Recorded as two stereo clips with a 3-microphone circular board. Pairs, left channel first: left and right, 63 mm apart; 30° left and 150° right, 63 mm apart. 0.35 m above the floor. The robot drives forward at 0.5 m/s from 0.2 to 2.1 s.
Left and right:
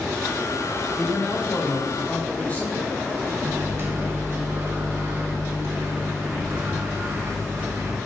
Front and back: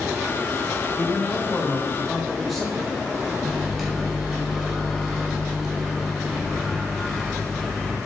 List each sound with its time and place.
1.0 s a man speaking: 45° left, 0.9 m; by 3.0 s 120° left, 0.9 m
3.4 s a microwave: 60° right, 0.9 m